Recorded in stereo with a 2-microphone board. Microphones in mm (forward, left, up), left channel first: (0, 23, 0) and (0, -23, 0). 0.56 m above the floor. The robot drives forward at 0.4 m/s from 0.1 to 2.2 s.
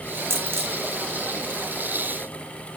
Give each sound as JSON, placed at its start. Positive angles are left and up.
{"t": 0.3, "sound": "a dropped coin", "side_deg": -80, "distance_m": 1.3}